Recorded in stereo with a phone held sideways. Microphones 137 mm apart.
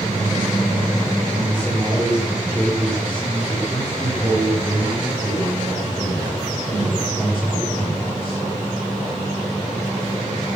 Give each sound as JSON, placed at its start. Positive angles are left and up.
{"t": 1.4, "sound": "a man speaking", "side_deg": -20, "distance_m": 3.5}